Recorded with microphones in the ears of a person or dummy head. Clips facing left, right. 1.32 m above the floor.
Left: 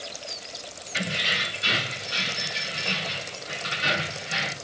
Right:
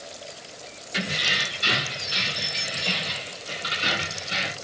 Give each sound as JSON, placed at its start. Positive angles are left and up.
{"t": 0.9, "sound": "keys jangling", "side_deg": -80, "distance_m": 2.5}